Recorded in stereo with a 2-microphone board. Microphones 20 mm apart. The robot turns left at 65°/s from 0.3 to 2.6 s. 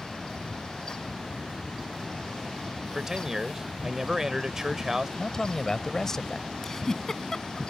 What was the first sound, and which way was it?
A man speaking, 25° right (ahead or behind).